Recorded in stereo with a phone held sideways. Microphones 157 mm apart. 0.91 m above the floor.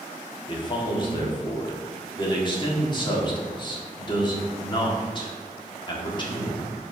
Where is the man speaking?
30° left (ahead or behind), 1.8 m.